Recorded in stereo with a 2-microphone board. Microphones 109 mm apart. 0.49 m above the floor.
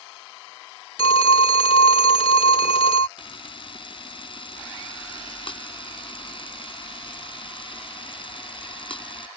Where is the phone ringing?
55° left (ahead or behind).